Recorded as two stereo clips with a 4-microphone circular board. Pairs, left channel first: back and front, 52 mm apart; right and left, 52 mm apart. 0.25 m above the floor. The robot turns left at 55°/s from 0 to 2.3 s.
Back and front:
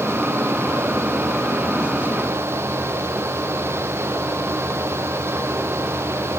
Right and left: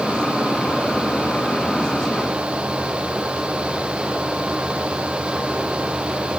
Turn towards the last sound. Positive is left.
No sound to turn to.